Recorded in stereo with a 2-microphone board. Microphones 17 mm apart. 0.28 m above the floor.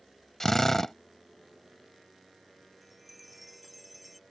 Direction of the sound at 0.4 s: 25° left (ahead or behind).